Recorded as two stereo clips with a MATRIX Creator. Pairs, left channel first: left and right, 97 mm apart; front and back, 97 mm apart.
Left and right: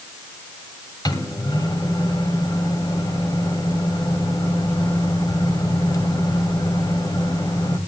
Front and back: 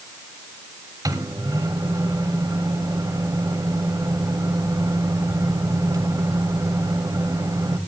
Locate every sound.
1.1 s a microwave: 130° left, 2.0 m